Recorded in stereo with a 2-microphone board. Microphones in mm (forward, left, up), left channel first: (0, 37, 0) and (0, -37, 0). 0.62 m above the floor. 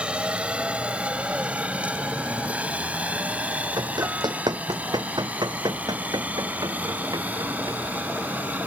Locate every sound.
0.0 s a helicopter: 15° right (ahead or behind); by 8.7 s 20° right (ahead or behind)
3.8 s running footsteps: 70° right (ahead or behind); by 7.8 s 55° right (ahead or behind)